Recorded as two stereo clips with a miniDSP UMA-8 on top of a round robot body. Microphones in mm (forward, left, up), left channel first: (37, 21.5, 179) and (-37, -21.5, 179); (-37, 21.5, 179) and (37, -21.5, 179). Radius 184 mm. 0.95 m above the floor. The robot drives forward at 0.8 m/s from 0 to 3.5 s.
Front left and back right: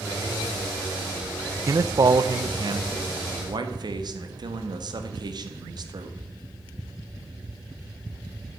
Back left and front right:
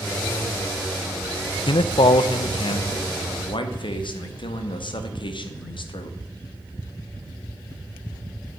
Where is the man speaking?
160° left, 0.7 m; by 6.2 s 175° left, 2 m.